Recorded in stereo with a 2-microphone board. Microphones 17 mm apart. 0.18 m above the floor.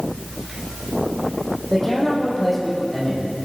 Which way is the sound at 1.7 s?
20° left (ahead or behind).